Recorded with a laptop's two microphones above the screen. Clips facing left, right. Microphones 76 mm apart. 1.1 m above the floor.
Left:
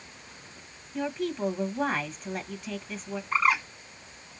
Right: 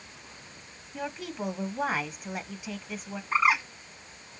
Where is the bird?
10° right (ahead or behind), 3 m.